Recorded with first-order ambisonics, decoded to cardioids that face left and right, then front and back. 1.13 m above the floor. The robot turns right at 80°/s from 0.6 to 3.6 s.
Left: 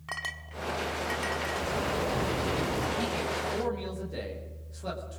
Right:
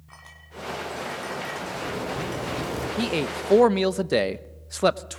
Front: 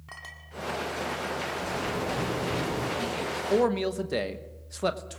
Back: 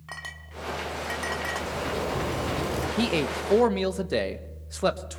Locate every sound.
0.1 s a clink: 105° left, 1.7 m; by 2.5 s 105° right, 1.7 m
1.6 s a zipper: 110° left, 6 m; by 2.9 s 145° right, 6 m
3.0 s a man speaking: 150° right, 0.9 m; by 5.2 s 100° right, 0.9 m